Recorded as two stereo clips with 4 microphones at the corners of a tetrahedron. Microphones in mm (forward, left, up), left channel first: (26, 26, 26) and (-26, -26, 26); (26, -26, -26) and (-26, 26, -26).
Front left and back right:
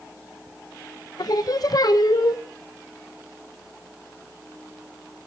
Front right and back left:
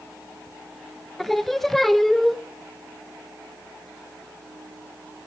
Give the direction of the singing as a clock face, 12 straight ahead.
11 o'clock.